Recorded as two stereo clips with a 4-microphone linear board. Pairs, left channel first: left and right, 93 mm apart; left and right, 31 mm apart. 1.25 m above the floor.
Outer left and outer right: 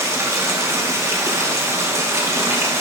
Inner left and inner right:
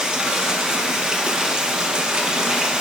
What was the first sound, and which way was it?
Running water, 30° right (ahead or behind).